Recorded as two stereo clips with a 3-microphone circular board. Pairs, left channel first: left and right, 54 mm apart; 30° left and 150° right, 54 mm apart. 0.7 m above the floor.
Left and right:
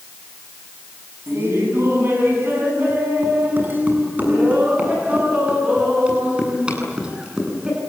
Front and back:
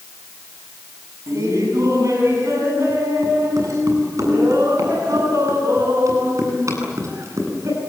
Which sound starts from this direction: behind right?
Laughter, at 1.3 s.